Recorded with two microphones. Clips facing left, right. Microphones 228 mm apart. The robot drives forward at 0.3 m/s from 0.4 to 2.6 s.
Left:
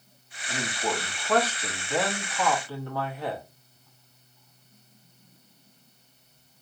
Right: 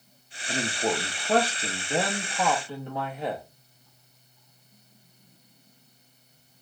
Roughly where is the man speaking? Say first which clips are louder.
Right 3 dB; right.